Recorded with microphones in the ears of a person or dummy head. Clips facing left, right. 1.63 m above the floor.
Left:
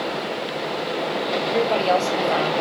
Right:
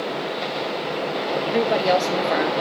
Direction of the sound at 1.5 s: 20° right (ahead or behind).